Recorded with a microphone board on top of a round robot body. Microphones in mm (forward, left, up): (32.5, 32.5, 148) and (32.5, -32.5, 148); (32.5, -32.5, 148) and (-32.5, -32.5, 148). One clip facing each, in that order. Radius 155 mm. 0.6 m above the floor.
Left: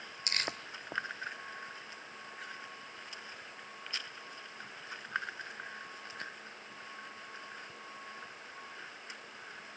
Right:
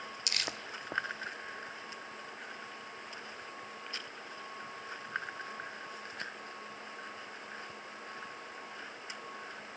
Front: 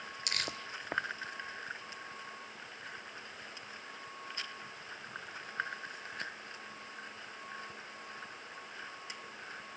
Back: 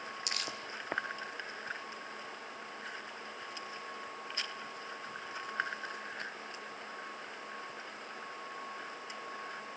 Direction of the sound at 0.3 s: 40° left.